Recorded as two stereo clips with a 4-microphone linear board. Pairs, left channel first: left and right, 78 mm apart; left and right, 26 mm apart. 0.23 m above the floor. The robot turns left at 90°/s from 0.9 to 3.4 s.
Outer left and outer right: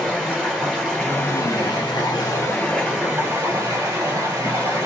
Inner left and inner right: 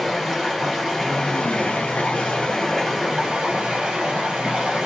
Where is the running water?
175° left, 1.9 m; by 4.9 s 50° right, 1.9 m.